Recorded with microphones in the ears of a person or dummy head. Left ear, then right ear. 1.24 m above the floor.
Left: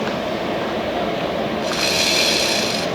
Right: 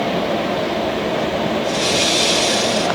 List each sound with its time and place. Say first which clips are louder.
1.6 s sawing: even; 65° left (ahead or behind), 5.5 m